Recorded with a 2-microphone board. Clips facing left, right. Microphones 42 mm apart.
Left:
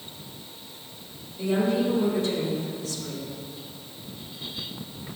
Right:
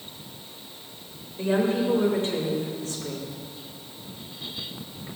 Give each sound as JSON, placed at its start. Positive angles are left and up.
{"t": 1.4, "sound": "a woman speaking", "side_deg": -40, "distance_m": 4.0}